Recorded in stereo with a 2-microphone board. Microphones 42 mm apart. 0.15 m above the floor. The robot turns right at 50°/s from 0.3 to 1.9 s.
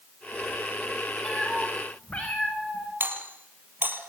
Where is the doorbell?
55° right (ahead or behind), 5 m.